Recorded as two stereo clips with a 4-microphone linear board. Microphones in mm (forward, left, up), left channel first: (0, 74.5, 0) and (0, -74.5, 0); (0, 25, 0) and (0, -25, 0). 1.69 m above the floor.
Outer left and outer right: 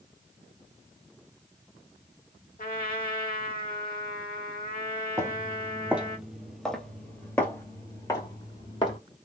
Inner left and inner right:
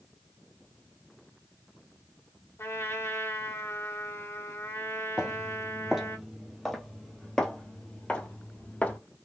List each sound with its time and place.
2.6 s a trumpet: 70° left (ahead or behind), 1.2 m
5.2 s footsteps: 20° right (ahead or behind), 1.9 m; by 9.0 s 35° left (ahead or behind), 2 m